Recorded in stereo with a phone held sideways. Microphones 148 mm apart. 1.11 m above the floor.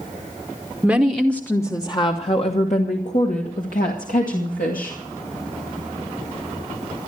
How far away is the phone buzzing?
I don't hear a phone buzzing.